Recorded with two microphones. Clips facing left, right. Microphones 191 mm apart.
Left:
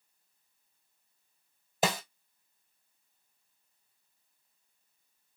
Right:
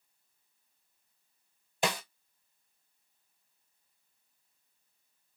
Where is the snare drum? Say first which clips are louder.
Left 2 dB; 45° left (ahead or behind), 1.1 m.